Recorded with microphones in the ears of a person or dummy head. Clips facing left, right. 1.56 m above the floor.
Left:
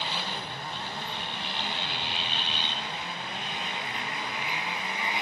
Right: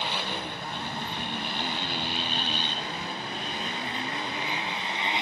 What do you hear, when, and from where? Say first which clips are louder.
0.0 s a motorcycle: right 3 dB; 55° right (ahead or behind); by 5.2 s 30° right (ahead or behind)